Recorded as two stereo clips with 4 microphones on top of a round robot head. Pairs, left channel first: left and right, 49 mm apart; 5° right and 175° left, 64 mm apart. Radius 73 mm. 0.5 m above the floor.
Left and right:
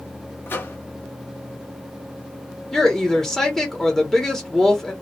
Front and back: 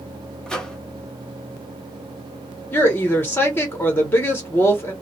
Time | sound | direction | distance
0.5 | a microwave | 75° left | 1.1 m
2.7 | a woman speaking | 20° left | 1.1 m